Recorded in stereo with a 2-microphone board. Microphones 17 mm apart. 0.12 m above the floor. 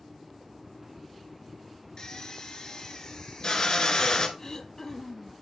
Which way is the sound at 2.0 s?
40° left (ahead or behind).